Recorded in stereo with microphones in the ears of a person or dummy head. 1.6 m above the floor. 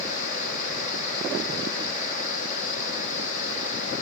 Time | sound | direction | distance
0.0 | a fan | 45° left (ahead or behind) | 2 m